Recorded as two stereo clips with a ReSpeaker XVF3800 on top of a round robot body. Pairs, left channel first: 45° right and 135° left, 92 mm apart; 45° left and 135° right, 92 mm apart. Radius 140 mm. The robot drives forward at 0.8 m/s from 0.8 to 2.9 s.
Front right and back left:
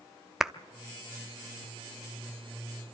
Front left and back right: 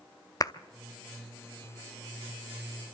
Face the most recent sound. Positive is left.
turn(degrees=165)